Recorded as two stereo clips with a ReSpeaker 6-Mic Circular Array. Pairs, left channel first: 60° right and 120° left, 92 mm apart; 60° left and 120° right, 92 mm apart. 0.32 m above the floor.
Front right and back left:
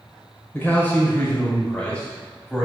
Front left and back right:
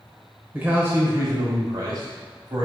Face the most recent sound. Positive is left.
turn(degrees=-140)